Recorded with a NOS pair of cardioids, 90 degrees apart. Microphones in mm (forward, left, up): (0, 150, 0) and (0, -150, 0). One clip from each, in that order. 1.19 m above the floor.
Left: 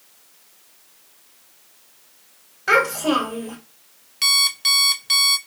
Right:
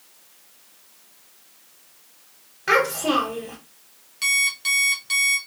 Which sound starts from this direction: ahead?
A child speaking, at 2.7 s.